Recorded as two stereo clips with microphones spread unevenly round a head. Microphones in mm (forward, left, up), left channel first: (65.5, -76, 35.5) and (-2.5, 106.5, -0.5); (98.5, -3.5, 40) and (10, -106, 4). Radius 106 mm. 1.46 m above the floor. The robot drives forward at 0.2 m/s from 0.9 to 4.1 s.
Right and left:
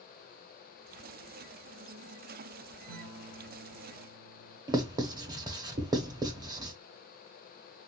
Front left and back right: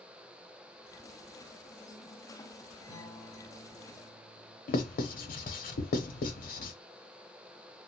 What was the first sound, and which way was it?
A guitar, 140° left.